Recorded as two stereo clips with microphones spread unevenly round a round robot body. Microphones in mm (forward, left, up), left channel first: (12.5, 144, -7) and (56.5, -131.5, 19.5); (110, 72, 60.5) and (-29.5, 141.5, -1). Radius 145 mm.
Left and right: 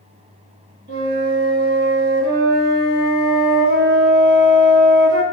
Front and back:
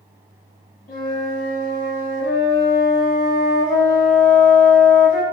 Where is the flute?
50° right, 1.1 m.